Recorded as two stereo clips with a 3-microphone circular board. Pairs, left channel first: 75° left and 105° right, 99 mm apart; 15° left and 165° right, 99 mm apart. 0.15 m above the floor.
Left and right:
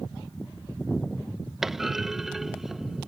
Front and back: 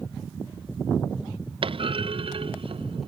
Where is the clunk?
170° left.